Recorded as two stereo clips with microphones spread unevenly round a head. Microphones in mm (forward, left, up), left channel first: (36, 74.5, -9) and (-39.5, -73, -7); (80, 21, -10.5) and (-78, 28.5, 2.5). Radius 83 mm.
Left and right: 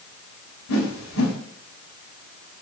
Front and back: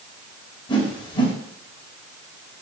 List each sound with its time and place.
0.7 s a whoosh: 60° left, 4 m